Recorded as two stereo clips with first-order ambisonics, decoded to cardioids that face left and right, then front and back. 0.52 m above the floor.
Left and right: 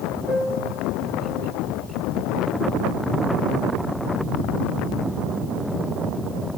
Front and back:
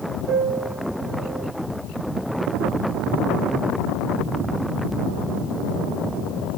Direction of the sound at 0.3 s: Straight behind.